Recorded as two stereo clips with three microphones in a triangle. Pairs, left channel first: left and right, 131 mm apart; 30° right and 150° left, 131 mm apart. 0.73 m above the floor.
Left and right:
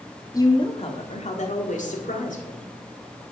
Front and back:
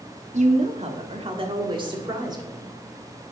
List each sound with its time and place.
0.3 s a woman speaking: 150° left, 1.3 m; by 2.7 s 90° left, 3 m